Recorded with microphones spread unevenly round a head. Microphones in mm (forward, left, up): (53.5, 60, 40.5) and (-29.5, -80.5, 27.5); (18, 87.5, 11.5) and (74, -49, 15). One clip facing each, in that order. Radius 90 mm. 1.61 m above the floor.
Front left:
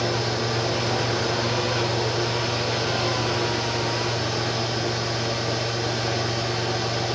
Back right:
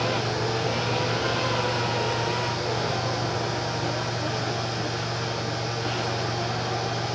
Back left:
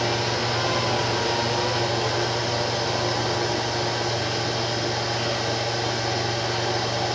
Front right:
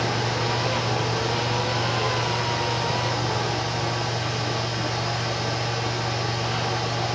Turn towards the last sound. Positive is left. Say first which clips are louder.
# front left 1 dB, back left 1 dB
turn(degrees=65)